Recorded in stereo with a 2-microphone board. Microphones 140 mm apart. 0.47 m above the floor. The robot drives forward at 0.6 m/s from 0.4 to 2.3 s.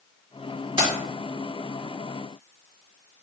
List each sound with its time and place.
0.8 s keys jangling: 35° right (ahead or behind), 1.6 m; by 0.9 s 40° right (ahead or behind), 1.6 m